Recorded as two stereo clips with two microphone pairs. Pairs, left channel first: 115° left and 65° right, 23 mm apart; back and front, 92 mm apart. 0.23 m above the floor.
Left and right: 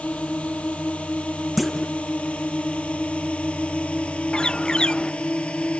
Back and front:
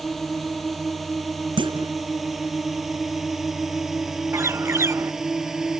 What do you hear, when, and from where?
0.0 s a drone: 95° left; by 5.8 s 85° left
1.6 s a clunk: 30° left
4.3 s a bird: 65° left